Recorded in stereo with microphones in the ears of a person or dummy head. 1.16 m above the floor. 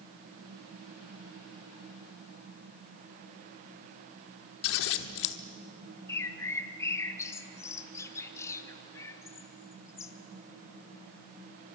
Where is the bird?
15° left (ahead or behind), 1.4 m.